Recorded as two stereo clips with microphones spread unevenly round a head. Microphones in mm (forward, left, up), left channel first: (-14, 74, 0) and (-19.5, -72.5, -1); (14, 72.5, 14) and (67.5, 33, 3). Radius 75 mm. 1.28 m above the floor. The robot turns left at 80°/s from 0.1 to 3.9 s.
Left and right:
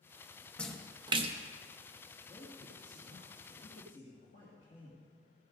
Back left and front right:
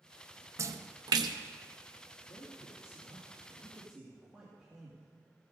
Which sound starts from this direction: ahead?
A splash, at 0.6 s.